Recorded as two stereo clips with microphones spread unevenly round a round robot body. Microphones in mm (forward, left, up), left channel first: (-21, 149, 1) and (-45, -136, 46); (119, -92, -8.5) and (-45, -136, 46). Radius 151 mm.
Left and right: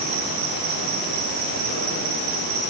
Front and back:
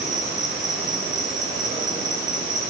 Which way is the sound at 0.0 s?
95° right.